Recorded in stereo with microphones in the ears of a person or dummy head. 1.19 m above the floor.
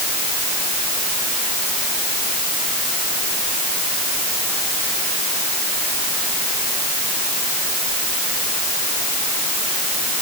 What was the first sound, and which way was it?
Only background noise.